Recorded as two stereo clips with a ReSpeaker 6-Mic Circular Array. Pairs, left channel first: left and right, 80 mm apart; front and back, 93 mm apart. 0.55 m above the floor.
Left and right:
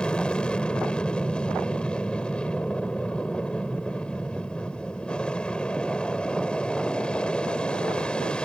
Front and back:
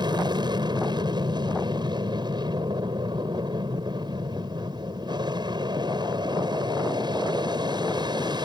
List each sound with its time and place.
0.0 s an aircraft: 165° left